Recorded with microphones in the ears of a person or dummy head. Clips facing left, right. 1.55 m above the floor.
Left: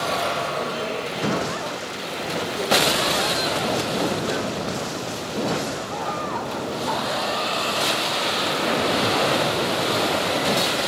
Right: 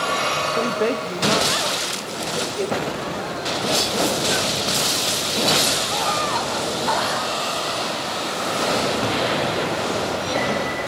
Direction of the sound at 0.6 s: 75° right (ahead or behind).